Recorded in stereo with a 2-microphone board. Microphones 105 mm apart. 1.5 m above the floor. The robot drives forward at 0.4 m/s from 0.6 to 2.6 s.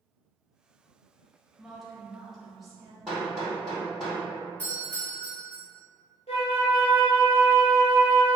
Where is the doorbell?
15° left (ahead or behind), 1.7 m.